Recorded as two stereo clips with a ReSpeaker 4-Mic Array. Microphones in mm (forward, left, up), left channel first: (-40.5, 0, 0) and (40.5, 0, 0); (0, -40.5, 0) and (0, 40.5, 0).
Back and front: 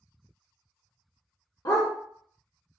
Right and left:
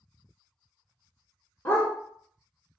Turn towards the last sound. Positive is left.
turn(degrees=-150)